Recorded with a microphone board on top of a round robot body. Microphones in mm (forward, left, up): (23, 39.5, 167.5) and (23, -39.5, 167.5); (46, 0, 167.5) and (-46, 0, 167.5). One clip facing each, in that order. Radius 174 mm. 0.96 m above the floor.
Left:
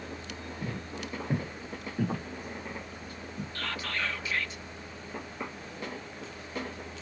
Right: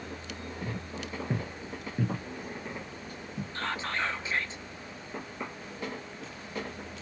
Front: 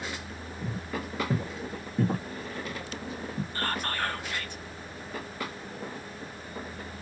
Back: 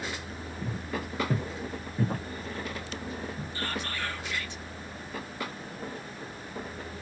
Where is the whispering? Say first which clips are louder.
Right 3 dB, front 3 dB; 30° right, 1.0 m.